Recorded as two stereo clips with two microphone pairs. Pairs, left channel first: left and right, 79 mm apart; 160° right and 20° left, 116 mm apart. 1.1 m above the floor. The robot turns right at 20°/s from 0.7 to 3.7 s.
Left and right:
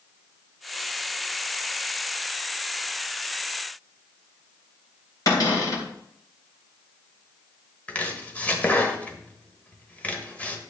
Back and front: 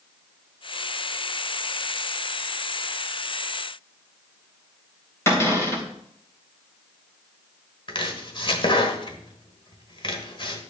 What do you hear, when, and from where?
5.3 s a cupboard door: 130° left, 3 m
7.9 s chopping: 160° left, 1.5 m